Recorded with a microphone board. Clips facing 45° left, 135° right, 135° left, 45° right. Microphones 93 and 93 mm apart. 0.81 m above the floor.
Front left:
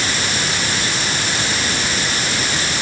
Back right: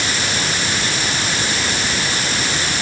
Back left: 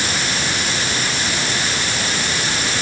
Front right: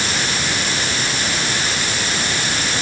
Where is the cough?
I don't hear a cough.